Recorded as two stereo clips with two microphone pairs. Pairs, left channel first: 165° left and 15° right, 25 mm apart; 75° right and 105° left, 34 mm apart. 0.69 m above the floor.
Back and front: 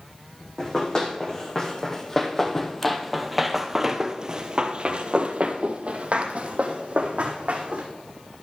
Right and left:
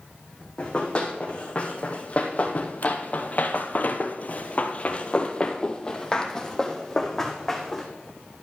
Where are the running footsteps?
135° right, 2 m; by 7.9 s 10° left, 2 m.